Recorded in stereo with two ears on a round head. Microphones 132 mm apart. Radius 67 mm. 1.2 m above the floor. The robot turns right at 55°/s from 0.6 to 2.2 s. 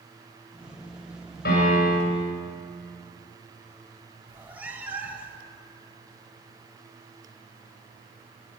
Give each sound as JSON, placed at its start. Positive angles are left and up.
{"t": 1.4, "sound": "a piano", "azimuth_deg": 105, "distance_m": 7.5}
{"t": 4.3, "sound": "a cat meowing", "side_deg": -10, "distance_m": 1.4}